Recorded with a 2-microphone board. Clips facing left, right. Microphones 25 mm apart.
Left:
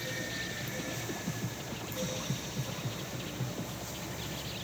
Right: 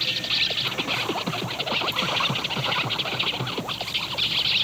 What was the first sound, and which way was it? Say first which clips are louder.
An insect: right 13 dB; 75° right (ahead or behind).